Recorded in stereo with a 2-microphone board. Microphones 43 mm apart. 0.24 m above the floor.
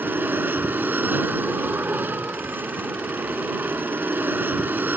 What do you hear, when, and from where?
0.0 s an aircraft: 50° right (ahead or behind)